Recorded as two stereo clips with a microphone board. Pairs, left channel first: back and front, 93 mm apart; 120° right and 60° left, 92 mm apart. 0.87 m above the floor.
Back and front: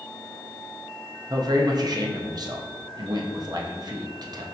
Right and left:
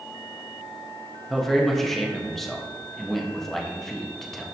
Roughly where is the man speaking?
Ahead right.